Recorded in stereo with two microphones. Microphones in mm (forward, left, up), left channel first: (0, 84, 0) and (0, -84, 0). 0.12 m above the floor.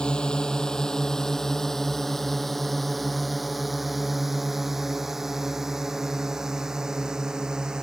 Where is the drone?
5° left (ahead or behind); by 7.8 s 5° right (ahead or behind).